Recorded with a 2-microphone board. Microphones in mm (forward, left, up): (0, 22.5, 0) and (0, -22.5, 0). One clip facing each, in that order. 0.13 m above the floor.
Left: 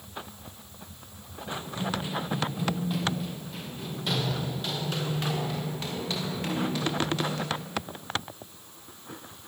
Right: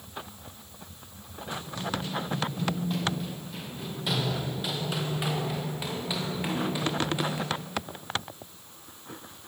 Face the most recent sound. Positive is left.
turn(degrees=-15)  # may be behind; listen again after turning